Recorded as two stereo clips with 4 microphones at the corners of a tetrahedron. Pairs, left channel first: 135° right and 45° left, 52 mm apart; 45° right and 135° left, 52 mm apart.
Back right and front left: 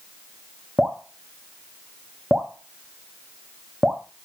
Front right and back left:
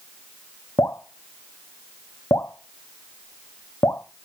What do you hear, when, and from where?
0.8 s dripping: 35° right, 1.2 m